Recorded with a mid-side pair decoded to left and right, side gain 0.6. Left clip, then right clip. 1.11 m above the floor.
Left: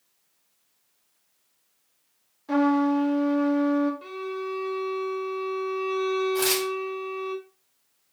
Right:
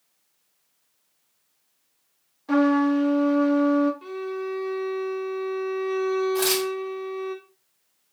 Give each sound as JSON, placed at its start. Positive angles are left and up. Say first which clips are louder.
{"t": 2.5, "sound": "a trumpet", "louder": "right 2 dB", "azimuth_deg": -25, "distance_m": 1.0}
{"t": 4.0, "sound": "a violin", "louder": "right 2 dB", "azimuth_deg": 5, "distance_m": 1.0}
{"t": 6.3, "sound": "tearing paper", "louder": "right 1 dB", "azimuth_deg": -10, "distance_m": 1.5}